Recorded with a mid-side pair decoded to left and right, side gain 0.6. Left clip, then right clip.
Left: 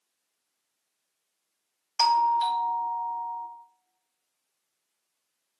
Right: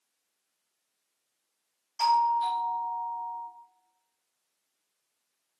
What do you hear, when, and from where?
2.0 s a doorbell: 55° left, 1.5 m